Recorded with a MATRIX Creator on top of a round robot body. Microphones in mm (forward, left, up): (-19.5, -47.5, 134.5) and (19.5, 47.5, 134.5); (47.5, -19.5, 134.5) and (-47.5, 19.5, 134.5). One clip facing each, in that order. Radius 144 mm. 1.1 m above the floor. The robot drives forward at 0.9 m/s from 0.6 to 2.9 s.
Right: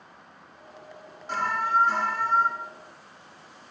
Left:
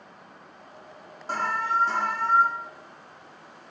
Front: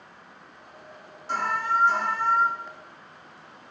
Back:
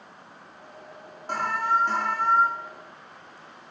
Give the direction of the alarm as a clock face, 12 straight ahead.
8 o'clock.